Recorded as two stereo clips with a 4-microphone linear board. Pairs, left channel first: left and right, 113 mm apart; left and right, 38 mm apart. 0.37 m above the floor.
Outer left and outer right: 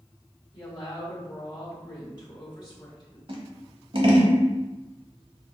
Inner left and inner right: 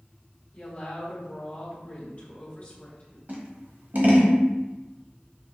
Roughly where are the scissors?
Right.